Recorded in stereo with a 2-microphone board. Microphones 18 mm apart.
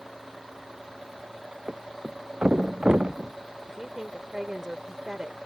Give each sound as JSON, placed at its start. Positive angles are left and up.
{"t": 1.7, "sound": "a thud", "side_deg": -65}
{"t": 3.7, "sound": "a woman speaking", "side_deg": -30}